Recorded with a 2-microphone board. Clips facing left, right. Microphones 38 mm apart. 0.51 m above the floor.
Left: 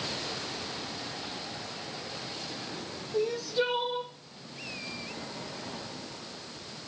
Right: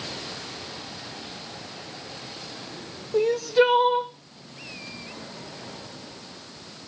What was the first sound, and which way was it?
Crying, 60° right (ahead or behind).